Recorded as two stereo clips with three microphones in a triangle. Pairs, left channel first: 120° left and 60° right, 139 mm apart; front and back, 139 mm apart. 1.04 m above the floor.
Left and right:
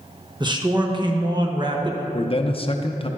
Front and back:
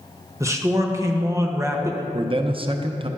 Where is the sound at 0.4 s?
110° right, 1.1 m.